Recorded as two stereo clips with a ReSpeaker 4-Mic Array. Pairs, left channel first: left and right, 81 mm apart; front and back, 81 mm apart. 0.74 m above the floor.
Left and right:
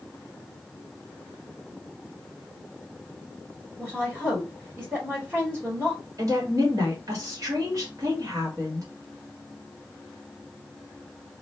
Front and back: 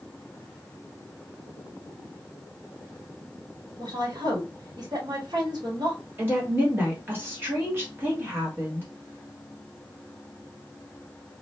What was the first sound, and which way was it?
A woman speaking, 160° right.